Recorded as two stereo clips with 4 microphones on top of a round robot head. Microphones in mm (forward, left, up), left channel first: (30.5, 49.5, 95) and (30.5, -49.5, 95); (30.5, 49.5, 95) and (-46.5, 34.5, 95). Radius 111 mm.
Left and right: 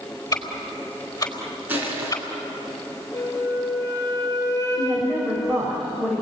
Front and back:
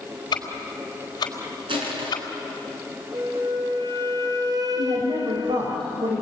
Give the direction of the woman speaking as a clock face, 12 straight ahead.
6 o'clock.